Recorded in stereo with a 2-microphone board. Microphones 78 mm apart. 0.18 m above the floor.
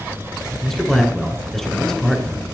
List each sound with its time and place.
0.6 s a man speaking: 5° left (ahead or behind), 3 m